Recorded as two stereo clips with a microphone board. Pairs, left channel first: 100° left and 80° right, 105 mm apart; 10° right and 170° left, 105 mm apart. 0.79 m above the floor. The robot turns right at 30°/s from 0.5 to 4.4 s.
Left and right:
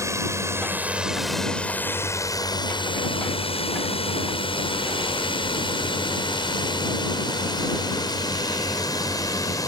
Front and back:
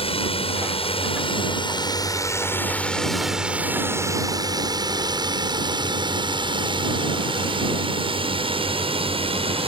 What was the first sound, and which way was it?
A drone, 20° right.